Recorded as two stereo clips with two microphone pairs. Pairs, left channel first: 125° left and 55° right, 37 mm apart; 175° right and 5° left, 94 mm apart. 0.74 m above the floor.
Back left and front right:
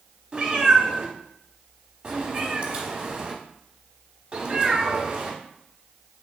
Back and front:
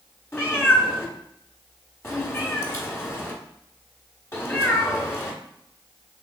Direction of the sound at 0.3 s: 115° right.